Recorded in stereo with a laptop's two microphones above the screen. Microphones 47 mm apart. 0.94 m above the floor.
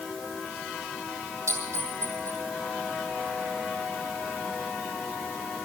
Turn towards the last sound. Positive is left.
turn(degrees=-75)  # may be behind; listen again after turning